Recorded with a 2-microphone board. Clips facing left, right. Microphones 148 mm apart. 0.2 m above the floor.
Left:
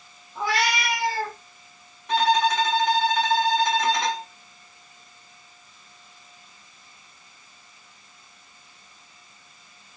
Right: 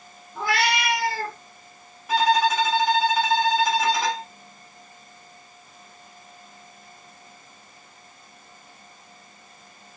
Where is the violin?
5° right (ahead or behind), 0.5 m.